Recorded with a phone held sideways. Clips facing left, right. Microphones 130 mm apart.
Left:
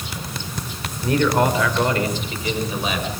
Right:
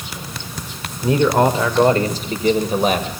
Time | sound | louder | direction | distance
1.0 | a man speaking | right 3 dB | 20° right (ahead or behind) | 2.5 m